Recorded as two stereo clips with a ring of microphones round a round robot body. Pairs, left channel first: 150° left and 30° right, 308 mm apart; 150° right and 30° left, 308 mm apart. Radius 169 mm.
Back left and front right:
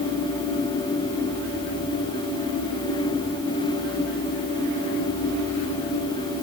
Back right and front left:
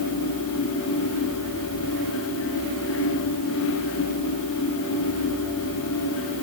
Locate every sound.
Only background noise.